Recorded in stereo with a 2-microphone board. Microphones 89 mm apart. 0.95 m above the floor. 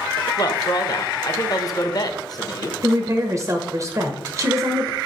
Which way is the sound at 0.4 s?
45° left (ahead or behind).